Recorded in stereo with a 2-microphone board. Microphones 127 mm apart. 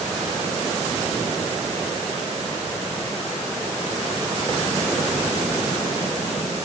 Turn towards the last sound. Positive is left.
No sound to turn to.